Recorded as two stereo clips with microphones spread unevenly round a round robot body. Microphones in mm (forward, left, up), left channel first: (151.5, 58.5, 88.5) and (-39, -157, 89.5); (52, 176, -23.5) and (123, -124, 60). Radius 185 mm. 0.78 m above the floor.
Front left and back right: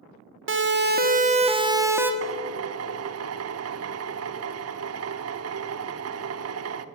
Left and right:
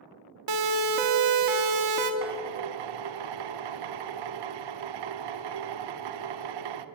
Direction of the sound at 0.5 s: 90° right.